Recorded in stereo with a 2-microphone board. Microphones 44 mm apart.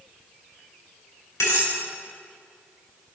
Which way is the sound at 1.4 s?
80° left.